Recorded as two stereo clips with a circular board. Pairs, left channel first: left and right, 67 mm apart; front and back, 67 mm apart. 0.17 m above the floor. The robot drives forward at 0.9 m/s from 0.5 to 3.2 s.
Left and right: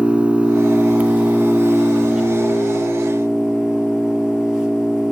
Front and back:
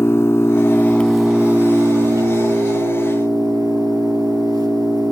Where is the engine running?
25° right, 0.9 m; by 5.1 s 170° right, 2.0 m.